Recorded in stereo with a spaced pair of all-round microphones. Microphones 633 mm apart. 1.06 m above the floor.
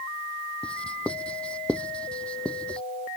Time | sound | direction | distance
0.6 | writing | centre (ahead or behind) | ?